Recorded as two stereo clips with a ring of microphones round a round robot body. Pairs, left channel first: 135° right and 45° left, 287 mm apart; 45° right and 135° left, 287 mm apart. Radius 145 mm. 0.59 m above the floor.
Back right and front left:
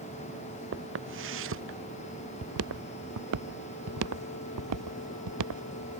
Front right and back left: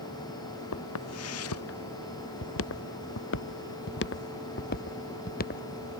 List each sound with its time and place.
0.7 s footsteps: 5° right; by 5.6 s 15° left